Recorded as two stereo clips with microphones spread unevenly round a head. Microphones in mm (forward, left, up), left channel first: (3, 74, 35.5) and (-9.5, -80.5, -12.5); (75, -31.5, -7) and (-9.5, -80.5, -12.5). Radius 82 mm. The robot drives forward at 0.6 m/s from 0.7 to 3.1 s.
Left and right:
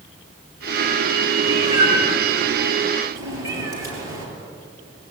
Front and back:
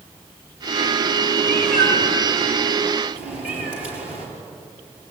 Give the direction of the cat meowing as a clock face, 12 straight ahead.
5 o'clock.